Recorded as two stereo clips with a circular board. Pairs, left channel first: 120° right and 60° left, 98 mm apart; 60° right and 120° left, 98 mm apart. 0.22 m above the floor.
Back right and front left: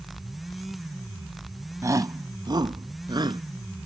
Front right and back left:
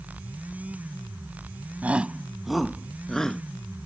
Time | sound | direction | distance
1.8 | a shout | 60° left | ?